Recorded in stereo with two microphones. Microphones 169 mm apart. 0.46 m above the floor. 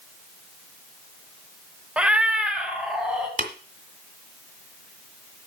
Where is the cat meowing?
5° right (ahead or behind), 0.7 m.